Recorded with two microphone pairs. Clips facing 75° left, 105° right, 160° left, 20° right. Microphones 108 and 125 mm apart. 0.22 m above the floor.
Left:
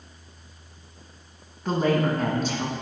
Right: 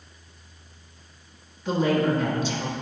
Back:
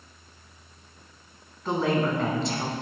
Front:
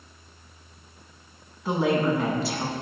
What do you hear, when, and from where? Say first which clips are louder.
1.6 s a woman speaking: even, front 2 dB; 65° left, 1.4 m